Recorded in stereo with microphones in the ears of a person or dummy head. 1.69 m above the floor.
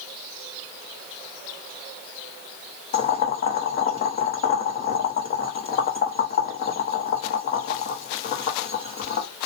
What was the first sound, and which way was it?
Boiling, 35° left (ahead or behind).